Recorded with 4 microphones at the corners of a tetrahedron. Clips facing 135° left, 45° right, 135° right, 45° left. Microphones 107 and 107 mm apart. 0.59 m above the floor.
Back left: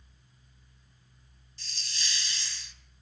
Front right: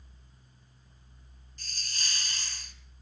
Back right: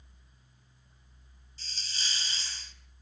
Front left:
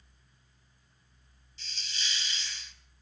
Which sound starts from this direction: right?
A hiss, at 1.6 s.